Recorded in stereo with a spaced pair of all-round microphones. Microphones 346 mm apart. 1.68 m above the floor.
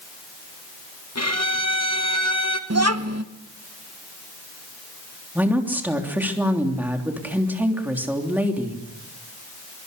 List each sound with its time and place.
1.1 s a violin: 45° left (ahead or behind), 1.8 m
2.7 s a child speaking: 45° right (ahead or behind), 1.2 m
5.3 s a woman speaking: 5° right (ahead or behind), 3 m